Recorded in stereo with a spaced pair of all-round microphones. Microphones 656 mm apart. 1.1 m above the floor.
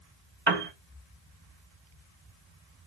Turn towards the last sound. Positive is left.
turn(degrees=-35)  # may be behind; listen again after turning